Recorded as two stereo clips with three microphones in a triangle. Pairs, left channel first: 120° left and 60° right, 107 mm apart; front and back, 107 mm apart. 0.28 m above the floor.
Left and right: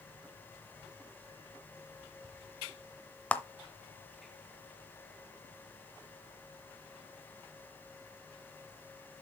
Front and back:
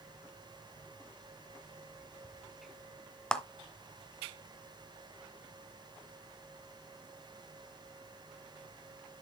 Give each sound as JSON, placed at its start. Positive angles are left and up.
{"t": 3.3, "sound": "a clap", "azimuth_deg": 70, "distance_m": 0.7}